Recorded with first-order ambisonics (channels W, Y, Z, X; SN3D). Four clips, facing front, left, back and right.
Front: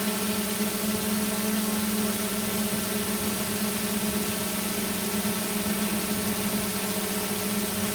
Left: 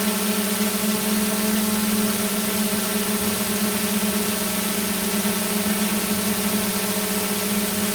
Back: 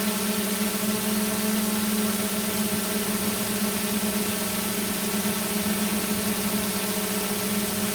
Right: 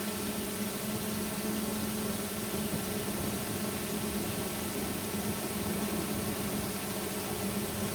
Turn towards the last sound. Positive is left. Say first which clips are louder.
# left 13 dB, back 2 dB
turn(degrees=100)